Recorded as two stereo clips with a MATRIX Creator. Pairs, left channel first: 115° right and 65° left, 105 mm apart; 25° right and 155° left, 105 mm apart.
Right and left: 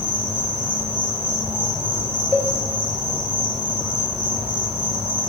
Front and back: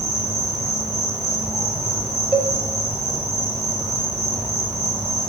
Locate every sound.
0.0 s an insect: 105° left, 2 m
2.3 s a cowbell: 90° left, 0.9 m